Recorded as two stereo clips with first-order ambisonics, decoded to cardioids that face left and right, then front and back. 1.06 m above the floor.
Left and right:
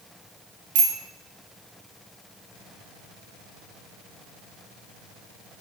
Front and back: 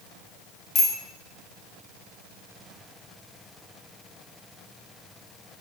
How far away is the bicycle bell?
About 3 m.